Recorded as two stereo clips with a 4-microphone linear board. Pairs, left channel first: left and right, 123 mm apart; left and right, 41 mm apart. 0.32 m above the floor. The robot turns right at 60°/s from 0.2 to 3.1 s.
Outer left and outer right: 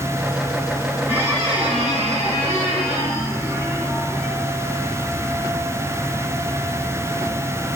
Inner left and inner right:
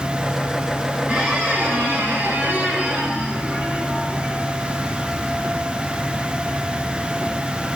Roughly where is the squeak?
Behind.